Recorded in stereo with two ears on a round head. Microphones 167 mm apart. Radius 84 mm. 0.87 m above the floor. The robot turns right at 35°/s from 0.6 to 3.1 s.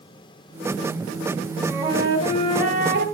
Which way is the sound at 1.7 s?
170° right.